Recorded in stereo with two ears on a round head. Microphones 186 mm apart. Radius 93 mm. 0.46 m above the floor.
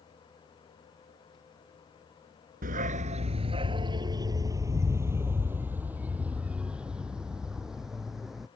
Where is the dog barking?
45° right (ahead or behind); by 8.5 s centre (ahead or behind).